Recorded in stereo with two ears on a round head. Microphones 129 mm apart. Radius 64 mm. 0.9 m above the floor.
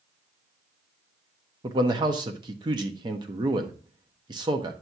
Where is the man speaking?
30° right (ahead or behind), 1.0 m.